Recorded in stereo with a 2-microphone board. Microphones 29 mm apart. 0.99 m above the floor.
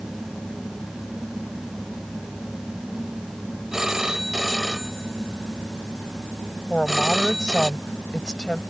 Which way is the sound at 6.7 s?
30° left (ahead or behind).